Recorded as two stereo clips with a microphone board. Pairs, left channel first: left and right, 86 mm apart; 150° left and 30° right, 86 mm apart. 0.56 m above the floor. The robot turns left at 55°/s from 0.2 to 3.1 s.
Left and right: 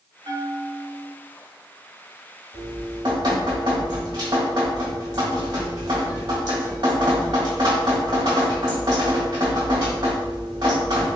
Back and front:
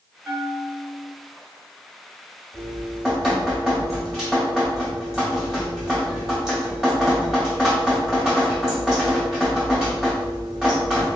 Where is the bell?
105° right, 1.3 m; by 1.1 s 155° right, 1.3 m.